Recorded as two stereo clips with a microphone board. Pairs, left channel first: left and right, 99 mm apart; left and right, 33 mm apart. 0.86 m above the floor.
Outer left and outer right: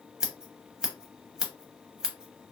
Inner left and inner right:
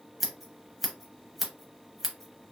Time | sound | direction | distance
0.2 | scissors | 5° right (ahead or behind) | 0.8 m